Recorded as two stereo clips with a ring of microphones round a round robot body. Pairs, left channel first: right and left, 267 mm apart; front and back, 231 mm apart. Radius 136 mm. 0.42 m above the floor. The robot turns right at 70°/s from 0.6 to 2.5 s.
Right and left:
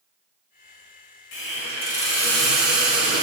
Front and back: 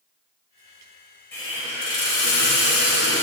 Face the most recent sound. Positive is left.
turn(degrees=5)